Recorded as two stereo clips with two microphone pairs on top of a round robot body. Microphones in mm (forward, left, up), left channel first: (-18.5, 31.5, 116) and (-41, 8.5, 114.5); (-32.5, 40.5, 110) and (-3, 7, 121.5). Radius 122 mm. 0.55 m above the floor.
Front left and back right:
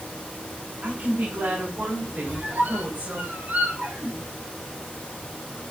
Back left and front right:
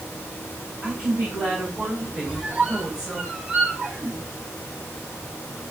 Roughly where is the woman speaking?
Right.